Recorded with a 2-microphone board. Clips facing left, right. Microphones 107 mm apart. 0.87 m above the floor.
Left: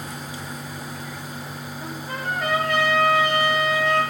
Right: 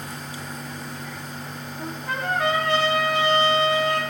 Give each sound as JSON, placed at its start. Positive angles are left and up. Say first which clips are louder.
{"t": 1.8, "sound": "a trumpet", "louder": "right 3 dB", "side_deg": -80, "distance_m": 4.0}